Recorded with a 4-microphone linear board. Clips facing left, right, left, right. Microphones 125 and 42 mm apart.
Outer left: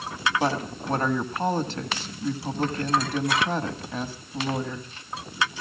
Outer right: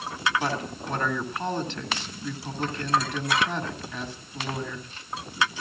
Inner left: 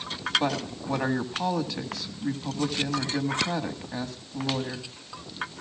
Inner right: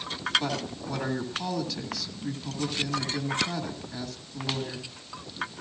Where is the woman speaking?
35° left (ahead or behind), 1.9 m.